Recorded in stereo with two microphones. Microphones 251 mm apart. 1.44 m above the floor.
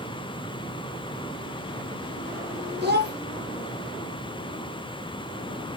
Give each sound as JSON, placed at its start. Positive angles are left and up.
{"t": 2.8, "sound": "a child speaking", "side_deg": -40, "distance_m": 1.0}